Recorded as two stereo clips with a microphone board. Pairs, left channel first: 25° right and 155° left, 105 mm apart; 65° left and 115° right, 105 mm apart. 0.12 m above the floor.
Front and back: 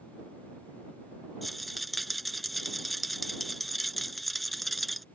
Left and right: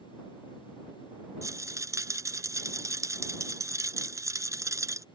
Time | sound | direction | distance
1.4 | a rattle | 110° right | ?